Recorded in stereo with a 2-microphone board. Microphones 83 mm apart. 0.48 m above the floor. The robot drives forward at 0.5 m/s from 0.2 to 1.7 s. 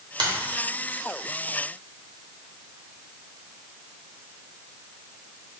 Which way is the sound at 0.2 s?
65° right (ahead or behind).